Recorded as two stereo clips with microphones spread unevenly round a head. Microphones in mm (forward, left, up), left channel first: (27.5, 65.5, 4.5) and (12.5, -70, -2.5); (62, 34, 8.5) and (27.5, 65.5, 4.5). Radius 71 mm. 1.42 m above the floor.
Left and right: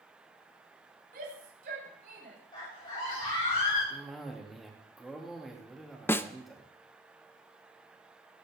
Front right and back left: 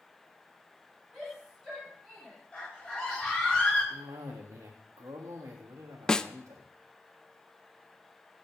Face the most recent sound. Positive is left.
turn(degrees=20)